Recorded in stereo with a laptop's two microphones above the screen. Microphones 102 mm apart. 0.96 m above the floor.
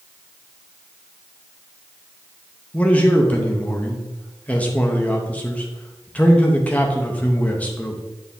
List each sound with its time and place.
2.7 s a man speaking: 15° left (ahead or behind), 0.7 m